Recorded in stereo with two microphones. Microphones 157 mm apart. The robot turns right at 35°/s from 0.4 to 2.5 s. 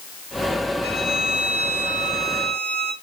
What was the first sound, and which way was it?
A violin, 160° right.